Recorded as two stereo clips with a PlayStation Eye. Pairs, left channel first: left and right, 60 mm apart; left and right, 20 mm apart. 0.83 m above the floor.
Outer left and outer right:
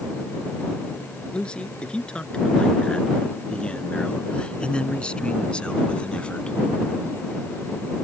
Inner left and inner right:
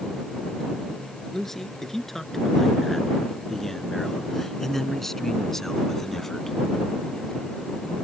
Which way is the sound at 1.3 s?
20° left (ahead or behind).